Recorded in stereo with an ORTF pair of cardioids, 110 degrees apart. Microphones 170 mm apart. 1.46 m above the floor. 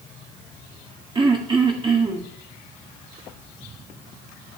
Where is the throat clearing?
30° right, 2.0 m.